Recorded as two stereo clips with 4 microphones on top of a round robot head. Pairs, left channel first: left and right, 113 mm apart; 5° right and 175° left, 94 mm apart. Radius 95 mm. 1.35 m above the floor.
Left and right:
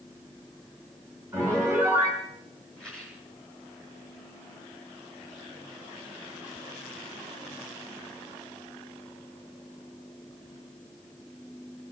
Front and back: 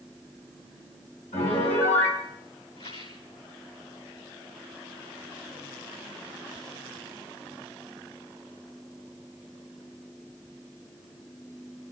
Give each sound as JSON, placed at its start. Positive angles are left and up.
{"t": 1.3, "sound": "a piano", "azimuth_deg": -10, "distance_m": 6.0}
{"t": 2.8, "sound": "a rattle", "azimuth_deg": 5, "distance_m": 7.5}